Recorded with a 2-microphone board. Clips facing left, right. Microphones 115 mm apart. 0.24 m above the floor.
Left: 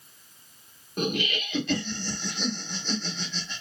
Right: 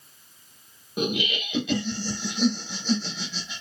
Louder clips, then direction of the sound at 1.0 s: Right 1 dB; 10° right (ahead or behind).